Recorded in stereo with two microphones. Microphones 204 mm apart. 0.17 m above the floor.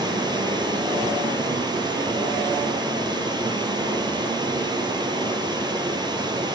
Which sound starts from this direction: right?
Running water, at 0.0 s.